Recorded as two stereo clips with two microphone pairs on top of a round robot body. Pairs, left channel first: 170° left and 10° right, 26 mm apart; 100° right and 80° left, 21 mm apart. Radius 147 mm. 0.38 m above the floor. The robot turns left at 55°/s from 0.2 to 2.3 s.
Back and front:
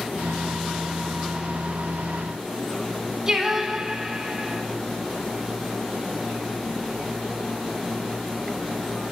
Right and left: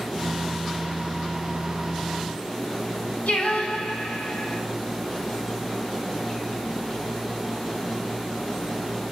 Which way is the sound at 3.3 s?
80° right.